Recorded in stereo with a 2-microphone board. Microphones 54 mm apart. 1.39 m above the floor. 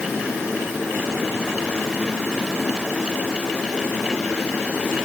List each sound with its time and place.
Only background noise.